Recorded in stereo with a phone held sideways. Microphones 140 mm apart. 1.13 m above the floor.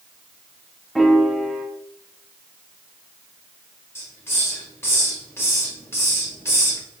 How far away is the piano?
About 0.6 m.